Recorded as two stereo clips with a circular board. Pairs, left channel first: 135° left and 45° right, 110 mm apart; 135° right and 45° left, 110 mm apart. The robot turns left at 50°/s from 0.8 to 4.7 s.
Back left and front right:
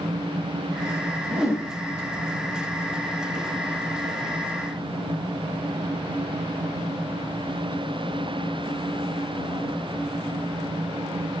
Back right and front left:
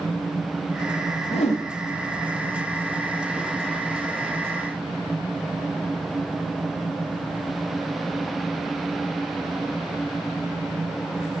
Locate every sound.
1.3 s a whoosh: 125° right, 8.5 m; by 1.6 s 140° right, 8.5 m